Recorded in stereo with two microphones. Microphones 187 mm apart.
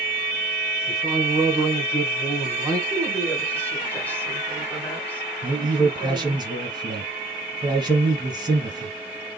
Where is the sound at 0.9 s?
20° right (ahead or behind), 1.2 m.